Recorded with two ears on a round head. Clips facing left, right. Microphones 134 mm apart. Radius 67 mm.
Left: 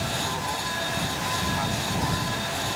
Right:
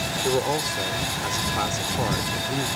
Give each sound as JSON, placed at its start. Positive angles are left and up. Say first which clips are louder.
{"t": 0.2, "sound": "a man speaking", "louder": "right 7 dB", "side_deg": -75}